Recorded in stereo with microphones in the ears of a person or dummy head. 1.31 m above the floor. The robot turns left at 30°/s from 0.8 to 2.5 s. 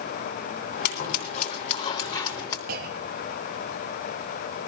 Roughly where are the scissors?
Left.